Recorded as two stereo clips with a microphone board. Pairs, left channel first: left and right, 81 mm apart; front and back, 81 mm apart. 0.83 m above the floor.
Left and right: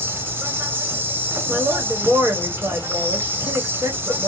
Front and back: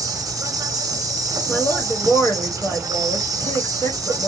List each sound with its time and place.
0.0 s an insect: 150° right, 0.9 m
1.5 s a woman speaking: 45° right, 1.8 m